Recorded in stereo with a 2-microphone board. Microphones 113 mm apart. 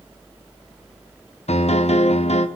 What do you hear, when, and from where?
1.5 s a piano: 70° left (ahead or behind), 0.6 m